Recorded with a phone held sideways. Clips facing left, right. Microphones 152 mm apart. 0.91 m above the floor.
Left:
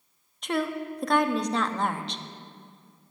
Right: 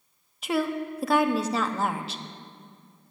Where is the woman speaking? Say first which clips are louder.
Right 2 dB; 5° right (ahead or behind), 0.9 m.